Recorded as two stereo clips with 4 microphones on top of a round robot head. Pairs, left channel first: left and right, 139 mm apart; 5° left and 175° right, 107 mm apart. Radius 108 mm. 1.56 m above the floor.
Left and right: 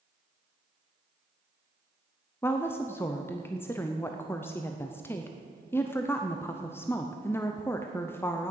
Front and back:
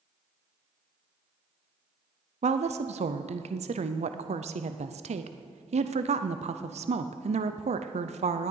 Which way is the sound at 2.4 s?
165° left.